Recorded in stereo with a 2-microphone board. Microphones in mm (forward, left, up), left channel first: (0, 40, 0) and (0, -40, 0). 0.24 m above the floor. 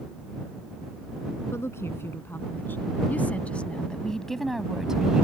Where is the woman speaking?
35° left (ahead or behind); by 5.2 s 15° right (ahead or behind).